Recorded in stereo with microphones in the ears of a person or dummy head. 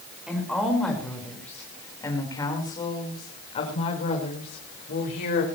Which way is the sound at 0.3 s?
Centre (ahead or behind).